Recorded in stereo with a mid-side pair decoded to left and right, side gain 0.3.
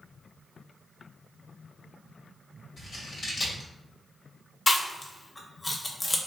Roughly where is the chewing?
Ahead left.